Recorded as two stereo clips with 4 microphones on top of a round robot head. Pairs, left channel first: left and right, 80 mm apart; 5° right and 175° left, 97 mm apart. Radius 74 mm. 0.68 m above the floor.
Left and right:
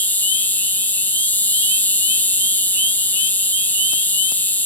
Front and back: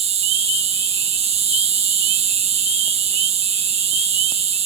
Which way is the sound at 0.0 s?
160° left.